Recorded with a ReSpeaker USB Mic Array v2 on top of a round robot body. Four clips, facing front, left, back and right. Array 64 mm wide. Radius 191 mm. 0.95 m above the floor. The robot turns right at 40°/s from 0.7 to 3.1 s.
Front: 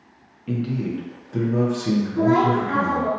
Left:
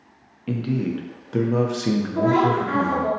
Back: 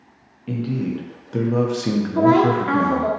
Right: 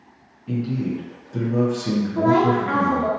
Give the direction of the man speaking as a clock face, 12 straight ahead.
9 o'clock.